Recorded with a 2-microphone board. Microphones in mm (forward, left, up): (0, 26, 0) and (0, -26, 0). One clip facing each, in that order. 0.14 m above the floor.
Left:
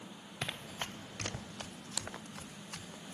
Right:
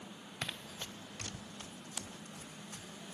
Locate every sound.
0.4 s running footsteps: 20° left (ahead or behind); by 3.1 s 90° left